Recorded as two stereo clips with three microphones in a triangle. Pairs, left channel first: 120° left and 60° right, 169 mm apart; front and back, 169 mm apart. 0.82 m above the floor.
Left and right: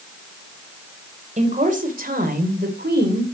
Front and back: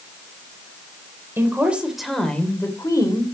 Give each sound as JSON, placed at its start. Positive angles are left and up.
{"t": 1.4, "sound": "a woman speaking", "azimuth_deg": -100, "distance_m": 2.5}